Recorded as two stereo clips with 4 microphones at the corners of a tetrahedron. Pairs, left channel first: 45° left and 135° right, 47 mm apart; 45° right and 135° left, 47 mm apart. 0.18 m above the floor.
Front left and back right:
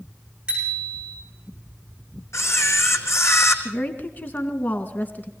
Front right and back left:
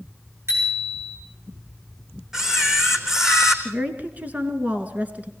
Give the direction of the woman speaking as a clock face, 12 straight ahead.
9 o'clock.